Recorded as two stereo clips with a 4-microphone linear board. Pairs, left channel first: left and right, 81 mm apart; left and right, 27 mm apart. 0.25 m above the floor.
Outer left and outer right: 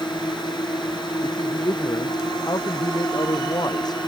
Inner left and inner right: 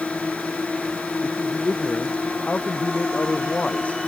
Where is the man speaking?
55° left (ahead or behind).